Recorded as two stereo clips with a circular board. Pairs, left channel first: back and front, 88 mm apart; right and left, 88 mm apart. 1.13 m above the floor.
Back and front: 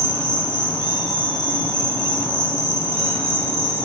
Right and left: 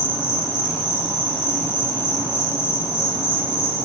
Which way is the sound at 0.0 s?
150° right.